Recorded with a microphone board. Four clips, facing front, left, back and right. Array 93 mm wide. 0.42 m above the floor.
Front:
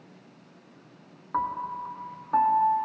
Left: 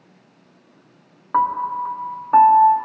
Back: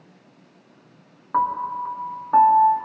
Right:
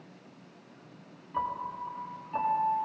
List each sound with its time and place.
1.3 s a piano: 110° left, 1.3 m